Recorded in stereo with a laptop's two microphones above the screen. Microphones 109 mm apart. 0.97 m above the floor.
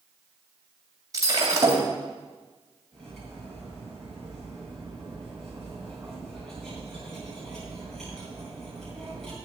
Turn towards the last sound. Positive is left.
turn(degrees=5)  # may be behind; listen again after turning